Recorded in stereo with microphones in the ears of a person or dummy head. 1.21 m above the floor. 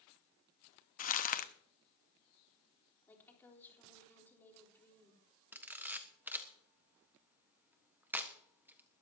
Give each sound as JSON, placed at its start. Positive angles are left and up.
{"t": 1.0, "sound": "crumpling", "side_deg": 40, "distance_m": 0.9}
{"t": 3.1, "sound": "a woman speaking", "side_deg": 10, "distance_m": 4.0}
{"t": 5.5, "sound": "a camera shutter", "side_deg": -10, "distance_m": 1.3}